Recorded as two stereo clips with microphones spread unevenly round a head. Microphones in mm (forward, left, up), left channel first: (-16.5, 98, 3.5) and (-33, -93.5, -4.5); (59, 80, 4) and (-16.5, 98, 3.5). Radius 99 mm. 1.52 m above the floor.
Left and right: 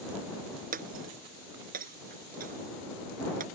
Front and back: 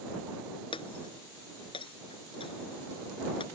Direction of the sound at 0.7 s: 45° right.